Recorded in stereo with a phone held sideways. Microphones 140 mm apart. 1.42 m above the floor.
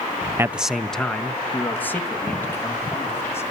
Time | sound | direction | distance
0.4 | a man speaking | 20° right (ahead or behind) | 0.5 m